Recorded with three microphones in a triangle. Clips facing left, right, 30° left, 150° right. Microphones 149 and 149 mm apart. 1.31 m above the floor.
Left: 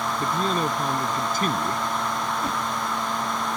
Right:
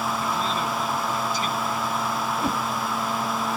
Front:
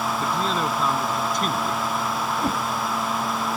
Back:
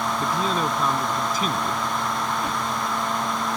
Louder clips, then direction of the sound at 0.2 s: Left 2 dB, back 1 dB; 125° left.